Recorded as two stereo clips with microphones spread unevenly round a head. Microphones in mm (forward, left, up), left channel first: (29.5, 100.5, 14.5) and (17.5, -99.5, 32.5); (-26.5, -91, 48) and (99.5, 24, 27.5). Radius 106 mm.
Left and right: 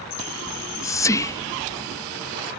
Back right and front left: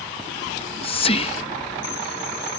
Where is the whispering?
160° left.